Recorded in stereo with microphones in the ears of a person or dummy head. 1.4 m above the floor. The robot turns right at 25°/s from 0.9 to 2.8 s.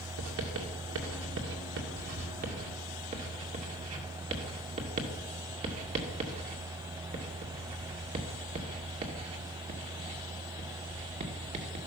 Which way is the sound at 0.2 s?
85° right.